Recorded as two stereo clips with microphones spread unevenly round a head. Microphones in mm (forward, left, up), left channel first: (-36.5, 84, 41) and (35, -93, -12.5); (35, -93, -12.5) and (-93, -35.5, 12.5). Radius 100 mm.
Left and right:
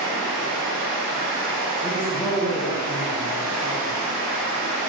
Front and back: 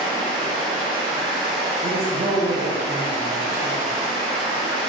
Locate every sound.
0.0 s running water: 15° left, 1.0 m
1.8 s a man speaking: 155° right, 0.9 m